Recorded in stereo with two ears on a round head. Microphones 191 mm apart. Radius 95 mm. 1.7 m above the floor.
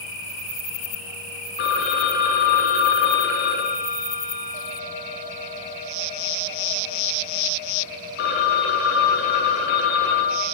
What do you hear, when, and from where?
1.6 s a phone ringing: 55° left (ahead or behind), 2.5 m